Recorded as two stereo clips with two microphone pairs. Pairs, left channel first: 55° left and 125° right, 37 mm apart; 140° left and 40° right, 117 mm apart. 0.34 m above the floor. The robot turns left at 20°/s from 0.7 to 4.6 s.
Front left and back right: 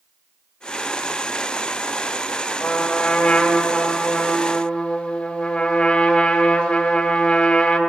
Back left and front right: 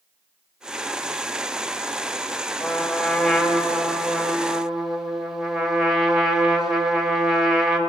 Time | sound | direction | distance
2.6 | a trumpet | 80° left | 1.4 m